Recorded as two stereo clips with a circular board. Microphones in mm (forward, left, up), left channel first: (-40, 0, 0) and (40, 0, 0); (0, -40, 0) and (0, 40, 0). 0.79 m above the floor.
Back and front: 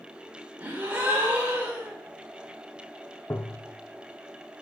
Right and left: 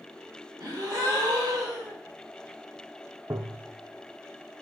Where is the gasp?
70° left, 2 m.